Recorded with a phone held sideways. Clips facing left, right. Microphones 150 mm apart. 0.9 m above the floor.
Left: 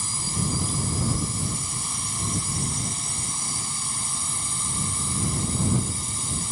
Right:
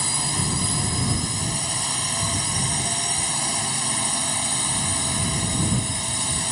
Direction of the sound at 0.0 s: 75° right (ahead or behind).